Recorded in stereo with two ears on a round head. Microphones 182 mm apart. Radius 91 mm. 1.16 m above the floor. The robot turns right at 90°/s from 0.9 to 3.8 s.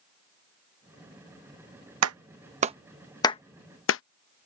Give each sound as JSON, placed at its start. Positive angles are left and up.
{"t": 2.0, "sound": "a clap", "side_deg": -90}